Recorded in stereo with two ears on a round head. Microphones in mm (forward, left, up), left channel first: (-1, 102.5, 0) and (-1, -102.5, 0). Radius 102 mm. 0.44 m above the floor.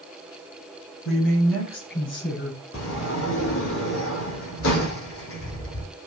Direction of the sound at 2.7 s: 65° left (ahead or behind).